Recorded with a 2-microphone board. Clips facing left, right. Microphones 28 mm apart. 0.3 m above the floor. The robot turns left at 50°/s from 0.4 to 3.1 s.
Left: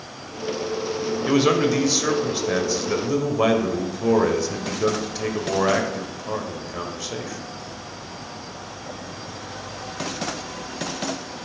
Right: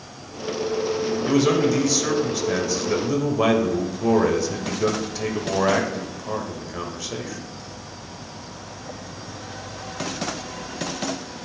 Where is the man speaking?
20° left (ahead or behind), 1.0 m; by 7.4 s 5° left (ahead or behind), 1.0 m.